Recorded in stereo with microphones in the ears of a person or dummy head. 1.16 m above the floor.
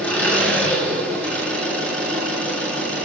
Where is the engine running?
5° left (ahead or behind), 8.5 m.